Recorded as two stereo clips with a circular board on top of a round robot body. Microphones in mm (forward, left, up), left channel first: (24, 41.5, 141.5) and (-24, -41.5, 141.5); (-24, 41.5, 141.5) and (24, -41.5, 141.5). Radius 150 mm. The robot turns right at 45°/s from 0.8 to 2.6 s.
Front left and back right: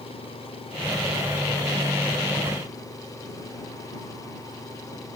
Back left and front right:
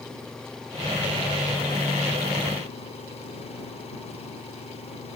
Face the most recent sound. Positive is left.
turn(degrees=115)